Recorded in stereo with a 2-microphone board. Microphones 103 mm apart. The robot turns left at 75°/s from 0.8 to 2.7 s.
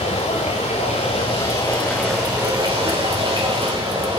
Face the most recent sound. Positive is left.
turn(degrees=-40)